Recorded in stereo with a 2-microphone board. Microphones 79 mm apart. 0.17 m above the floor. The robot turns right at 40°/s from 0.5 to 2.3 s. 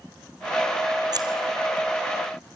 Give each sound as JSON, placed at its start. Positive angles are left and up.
{"t": 1.1, "sound": "scissors", "side_deg": -55, "distance_m": 2.0}